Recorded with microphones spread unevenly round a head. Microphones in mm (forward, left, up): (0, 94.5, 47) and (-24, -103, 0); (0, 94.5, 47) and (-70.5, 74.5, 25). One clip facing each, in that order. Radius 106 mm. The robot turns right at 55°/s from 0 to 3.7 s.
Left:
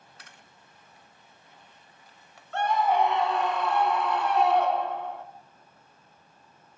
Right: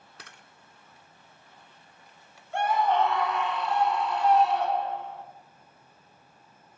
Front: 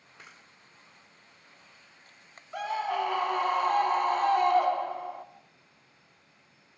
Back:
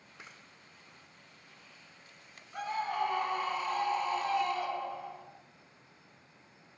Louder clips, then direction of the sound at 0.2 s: Right 2 dB, even; 70° right.